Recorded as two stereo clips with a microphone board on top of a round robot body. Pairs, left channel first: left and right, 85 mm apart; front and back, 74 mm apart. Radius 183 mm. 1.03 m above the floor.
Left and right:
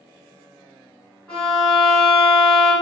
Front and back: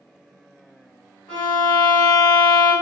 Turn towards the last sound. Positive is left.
turn(degrees=15)